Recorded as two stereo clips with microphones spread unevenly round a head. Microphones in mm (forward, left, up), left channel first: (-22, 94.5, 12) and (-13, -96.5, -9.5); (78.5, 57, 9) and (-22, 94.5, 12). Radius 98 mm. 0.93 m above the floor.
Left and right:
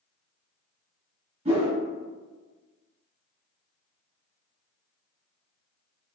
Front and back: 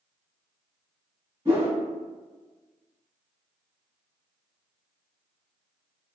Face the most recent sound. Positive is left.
turn(degrees=-140)